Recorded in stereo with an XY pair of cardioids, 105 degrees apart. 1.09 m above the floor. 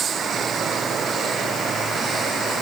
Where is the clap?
No clap in this recording.